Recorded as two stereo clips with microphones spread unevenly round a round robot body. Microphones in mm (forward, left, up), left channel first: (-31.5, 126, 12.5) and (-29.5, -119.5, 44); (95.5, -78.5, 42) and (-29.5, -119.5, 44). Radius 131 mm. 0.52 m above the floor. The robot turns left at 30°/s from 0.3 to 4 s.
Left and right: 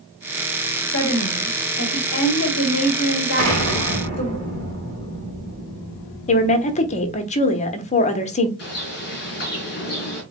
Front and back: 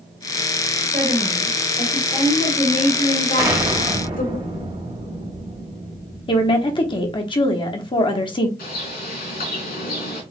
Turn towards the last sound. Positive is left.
turn(degrees=35)